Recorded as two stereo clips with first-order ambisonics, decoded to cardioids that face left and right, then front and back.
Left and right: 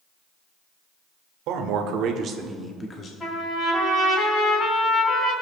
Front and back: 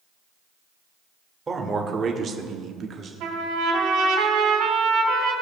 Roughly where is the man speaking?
Right.